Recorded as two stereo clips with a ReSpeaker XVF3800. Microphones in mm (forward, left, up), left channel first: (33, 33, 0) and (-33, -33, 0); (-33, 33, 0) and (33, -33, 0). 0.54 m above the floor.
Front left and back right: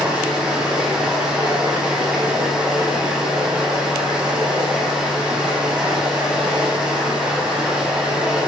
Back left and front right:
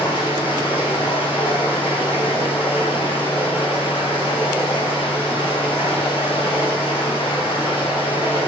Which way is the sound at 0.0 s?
145° left.